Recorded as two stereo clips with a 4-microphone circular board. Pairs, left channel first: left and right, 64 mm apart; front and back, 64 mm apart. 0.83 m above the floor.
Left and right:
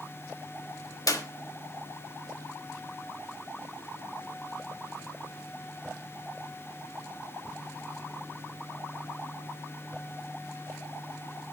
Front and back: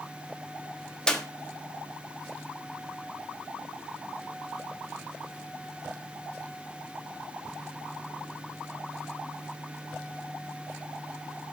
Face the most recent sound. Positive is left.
turn(degrees=75)